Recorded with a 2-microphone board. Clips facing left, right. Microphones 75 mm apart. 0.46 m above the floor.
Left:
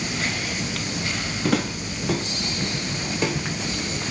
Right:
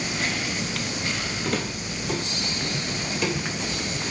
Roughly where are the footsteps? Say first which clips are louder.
Left 7 dB; left.